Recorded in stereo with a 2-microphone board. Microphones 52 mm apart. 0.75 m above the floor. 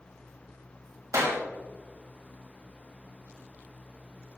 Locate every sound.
1.1 s a clap: 75° right (ahead or behind), 3 m